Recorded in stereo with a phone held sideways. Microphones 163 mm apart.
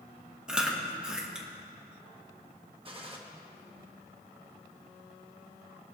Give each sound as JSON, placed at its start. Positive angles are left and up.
{"t": 0.5, "sound": "chewing", "side_deg": -5, "distance_m": 1.4}
{"t": 2.9, "sound": "a gunshot", "side_deg": -35, "distance_m": 1.3}